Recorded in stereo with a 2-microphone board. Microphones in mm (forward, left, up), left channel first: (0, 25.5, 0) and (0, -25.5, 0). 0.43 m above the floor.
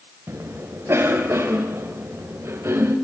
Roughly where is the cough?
Right.